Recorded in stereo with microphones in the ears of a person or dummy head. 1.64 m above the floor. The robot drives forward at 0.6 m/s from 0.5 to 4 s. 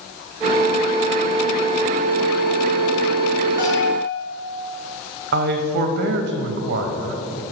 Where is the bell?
25° right (ahead or behind), 2.0 m; by 4.1 s 20° right (ahead or behind), 2 m.